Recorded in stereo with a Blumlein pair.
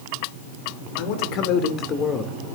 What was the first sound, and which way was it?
A man speaking, 45° left.